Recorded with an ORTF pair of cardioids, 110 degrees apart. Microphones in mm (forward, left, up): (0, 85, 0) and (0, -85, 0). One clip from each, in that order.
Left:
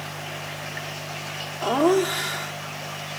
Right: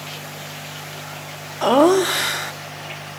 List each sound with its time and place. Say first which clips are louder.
1.6 s laughter: right 6 dB; 40° right, 0.7 m